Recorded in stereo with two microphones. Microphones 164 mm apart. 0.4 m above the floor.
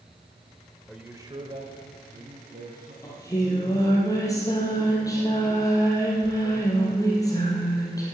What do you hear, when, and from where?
0.9 s a man speaking: centre (ahead or behind), 1.0 m; by 2.9 s 65° right (ahead or behind), 3 m
3.0 s singing: 20° left (ahead or behind), 3.5 m